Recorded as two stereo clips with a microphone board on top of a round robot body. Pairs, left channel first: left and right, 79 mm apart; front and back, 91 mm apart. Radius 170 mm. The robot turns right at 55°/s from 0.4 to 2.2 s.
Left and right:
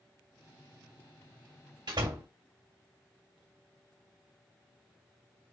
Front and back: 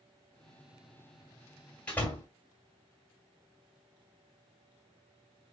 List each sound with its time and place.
1.9 s a door slam: 80° right, 2 m; by 2.3 s 60° right, 2 m